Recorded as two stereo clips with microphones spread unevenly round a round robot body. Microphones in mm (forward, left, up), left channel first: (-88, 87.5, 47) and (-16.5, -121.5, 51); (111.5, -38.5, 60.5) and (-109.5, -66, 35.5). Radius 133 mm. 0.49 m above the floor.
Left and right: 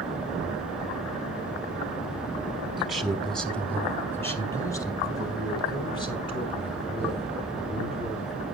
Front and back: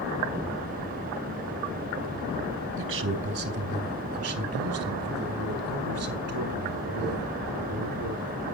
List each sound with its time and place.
2.8 s a man speaking: 160° right, 3.5 m; by 8.4 s 170° left, 6.5 m